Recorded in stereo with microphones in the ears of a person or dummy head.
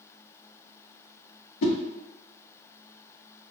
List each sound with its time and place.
1.6 s a whoosh: 75° left (ahead or behind), 0.7 m